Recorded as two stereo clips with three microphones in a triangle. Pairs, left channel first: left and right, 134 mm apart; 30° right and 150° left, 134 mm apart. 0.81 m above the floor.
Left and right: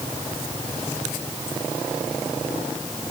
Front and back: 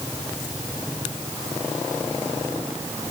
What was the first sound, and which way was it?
Only background noise.